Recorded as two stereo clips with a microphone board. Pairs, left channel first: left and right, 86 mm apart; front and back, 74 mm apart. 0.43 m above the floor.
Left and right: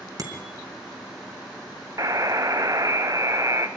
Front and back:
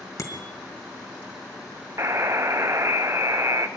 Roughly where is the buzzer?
Behind right.